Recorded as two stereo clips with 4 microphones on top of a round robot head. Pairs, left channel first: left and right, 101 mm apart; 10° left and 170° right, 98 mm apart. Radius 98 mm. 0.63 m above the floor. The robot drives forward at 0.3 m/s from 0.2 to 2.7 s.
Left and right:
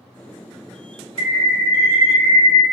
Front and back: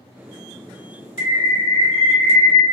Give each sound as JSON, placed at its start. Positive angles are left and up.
{"t": 1.2, "sound": "a bird", "azimuth_deg": -115, "distance_m": 0.5}